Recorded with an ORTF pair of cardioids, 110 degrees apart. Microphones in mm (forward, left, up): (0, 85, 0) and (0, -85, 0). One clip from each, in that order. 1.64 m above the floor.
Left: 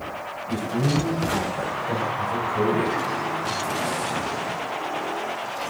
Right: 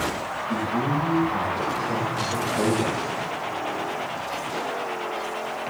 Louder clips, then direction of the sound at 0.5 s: Even; 60° left.